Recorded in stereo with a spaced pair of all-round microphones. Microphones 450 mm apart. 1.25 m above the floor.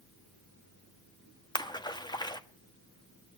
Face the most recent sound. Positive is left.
turn(degrees=10)  # may be behind; listen again after turning